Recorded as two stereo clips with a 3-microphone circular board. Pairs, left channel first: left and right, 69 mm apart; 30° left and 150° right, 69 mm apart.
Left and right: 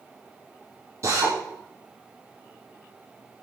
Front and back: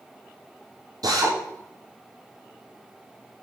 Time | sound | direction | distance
1.0 | a drill | 130° right | 7 m